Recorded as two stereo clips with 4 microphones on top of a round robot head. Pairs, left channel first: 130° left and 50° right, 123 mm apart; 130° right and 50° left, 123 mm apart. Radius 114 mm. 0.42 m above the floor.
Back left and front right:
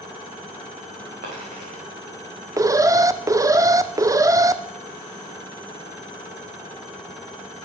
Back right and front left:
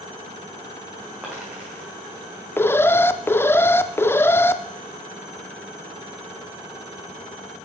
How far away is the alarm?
About 0.5 m.